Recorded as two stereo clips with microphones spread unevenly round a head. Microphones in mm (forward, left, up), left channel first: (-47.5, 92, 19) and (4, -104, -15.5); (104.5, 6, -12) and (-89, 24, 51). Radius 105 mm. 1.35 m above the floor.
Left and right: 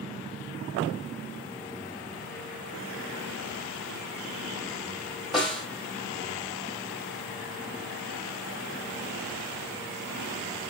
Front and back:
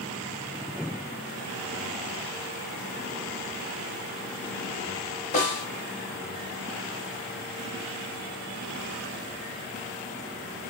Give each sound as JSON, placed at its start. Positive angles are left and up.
{"t": 5.3, "sound": "a snare drum", "azimuth_deg": 40, "distance_m": 1.1}